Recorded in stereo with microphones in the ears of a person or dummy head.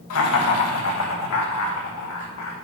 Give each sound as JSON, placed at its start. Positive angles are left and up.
{"t": 0.1, "sound": "laughter", "side_deg": 75, "distance_m": 1.7}